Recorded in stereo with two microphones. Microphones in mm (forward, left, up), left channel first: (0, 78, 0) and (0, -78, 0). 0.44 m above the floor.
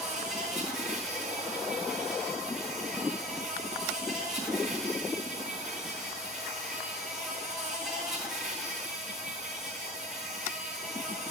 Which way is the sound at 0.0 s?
5° right (ahead or behind).